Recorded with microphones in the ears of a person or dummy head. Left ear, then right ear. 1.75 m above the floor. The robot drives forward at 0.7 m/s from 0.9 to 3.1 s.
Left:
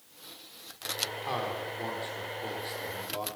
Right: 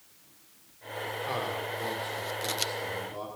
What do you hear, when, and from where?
1.2 s a man speaking: 10° left (ahead or behind), 7 m